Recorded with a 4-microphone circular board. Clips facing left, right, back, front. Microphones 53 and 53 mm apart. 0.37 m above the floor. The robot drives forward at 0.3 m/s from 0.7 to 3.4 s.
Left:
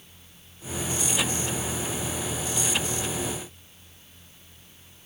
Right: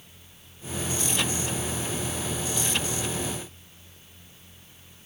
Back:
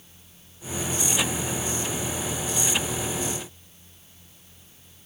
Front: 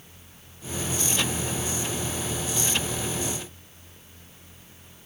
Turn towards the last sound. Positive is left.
No sound to turn to.